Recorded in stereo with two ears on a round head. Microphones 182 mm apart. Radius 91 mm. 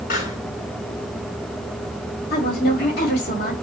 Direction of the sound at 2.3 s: 45° left (ahead or behind).